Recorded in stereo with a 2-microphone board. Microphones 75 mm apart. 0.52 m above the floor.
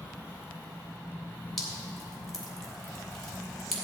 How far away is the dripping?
About 2.5 m.